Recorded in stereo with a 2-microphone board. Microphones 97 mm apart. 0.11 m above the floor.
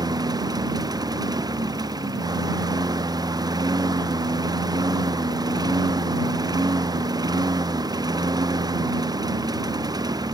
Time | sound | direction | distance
0.0 | a lawn mower | 40° right (ahead or behind) | ?